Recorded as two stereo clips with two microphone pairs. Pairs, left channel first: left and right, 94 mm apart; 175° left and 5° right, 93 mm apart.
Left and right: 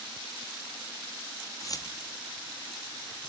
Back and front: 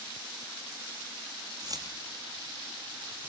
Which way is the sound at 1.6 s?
40° left.